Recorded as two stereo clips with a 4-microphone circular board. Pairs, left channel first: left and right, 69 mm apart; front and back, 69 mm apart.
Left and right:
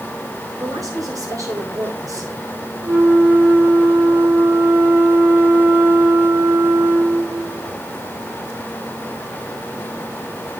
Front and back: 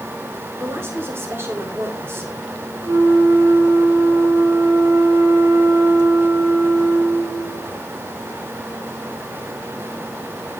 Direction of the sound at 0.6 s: 125° right.